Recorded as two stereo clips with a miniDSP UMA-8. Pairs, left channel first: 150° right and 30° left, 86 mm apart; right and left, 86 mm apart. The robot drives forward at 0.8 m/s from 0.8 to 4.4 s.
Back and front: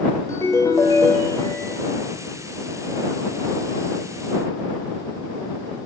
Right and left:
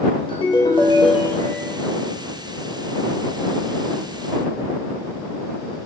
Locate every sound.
0.3 s a ringtone: 100° right, 0.8 m; by 1.7 s 135° right, 1.2 m